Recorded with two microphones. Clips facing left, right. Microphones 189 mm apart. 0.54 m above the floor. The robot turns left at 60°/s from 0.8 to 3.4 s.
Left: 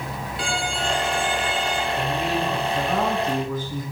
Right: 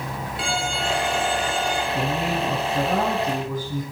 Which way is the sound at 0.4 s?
Straight ahead.